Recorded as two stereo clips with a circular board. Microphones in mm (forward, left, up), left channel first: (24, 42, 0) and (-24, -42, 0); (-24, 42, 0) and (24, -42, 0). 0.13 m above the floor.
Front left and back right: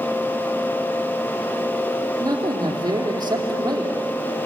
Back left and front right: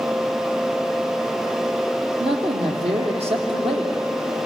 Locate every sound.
2.2 s a man speaking: 70° right, 4.5 m